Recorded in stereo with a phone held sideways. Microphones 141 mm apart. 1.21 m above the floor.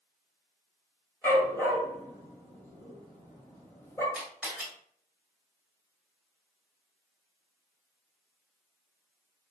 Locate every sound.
1.2 s a dog barking: 15° left (ahead or behind), 2.0 m
4.1 s a camera shutter: 10° right (ahead or behind), 2.5 m